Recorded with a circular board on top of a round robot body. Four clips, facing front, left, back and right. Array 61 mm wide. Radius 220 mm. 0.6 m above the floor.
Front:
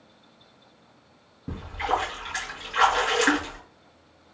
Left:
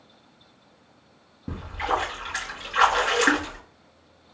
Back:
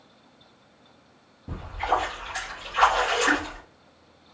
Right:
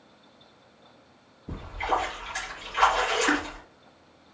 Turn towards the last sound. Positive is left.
turn(degrees=65)